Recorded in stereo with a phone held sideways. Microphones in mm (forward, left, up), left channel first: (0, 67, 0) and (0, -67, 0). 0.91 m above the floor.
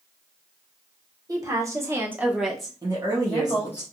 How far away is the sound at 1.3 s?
About 1.1 m.